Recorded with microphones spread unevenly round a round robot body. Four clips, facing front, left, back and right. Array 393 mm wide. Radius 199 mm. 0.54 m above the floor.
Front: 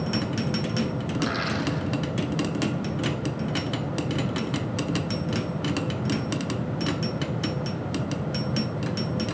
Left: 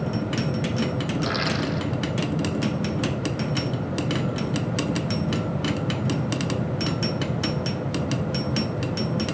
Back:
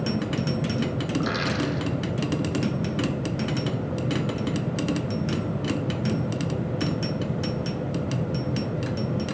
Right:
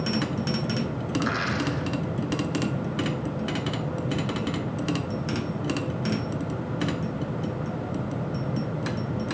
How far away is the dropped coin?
About 5.5 m.